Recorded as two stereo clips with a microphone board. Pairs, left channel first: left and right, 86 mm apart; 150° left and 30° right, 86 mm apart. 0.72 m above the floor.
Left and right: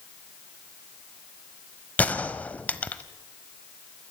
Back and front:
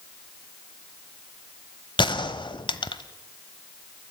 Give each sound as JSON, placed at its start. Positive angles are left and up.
{"t": 2.0, "sound": "a gunshot", "azimuth_deg": 160, "distance_m": 1.1}